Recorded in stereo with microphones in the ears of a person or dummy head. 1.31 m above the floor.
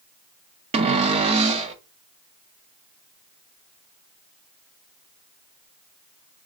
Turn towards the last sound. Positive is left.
turn(degrees=-35)  # may be behind; listen again after turning